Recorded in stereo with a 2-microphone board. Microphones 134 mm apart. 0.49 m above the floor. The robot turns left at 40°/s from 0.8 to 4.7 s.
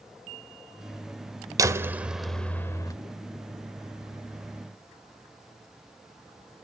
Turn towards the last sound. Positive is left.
turn(degrees=80)